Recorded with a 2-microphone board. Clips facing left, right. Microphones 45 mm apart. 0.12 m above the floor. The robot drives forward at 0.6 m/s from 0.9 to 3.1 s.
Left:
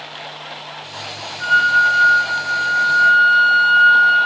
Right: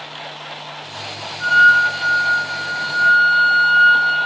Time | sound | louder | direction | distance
1.4 | a flute | right 2 dB | 20° left (ahead or behind) | 1.6 m